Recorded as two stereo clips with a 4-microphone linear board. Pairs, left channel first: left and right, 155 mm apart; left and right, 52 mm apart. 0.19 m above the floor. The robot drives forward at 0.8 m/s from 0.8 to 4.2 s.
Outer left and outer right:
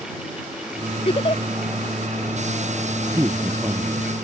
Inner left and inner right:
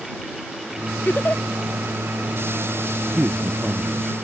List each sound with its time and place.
1.1 s a giggle: 40° left (ahead or behind)
3.2 s a man speaking: 25° right (ahead or behind)